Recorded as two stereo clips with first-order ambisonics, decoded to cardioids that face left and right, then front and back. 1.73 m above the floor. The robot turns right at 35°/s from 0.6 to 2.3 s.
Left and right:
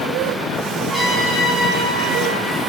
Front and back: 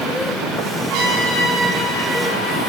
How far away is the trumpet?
About 6.5 m.